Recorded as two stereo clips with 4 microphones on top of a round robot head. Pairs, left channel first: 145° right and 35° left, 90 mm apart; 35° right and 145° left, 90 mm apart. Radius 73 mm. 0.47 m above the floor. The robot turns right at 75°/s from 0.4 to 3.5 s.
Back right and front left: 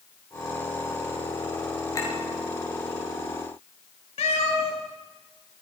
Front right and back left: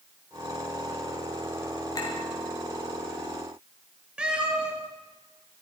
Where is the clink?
90° right, 6.5 m; by 2.1 s 75° right, 6.5 m.